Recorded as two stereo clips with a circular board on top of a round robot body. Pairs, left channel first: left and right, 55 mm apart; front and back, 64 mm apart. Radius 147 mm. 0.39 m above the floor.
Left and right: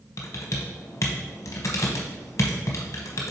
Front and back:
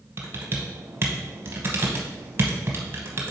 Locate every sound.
0.2 s typing on a keyboard: 125° left, 0.8 m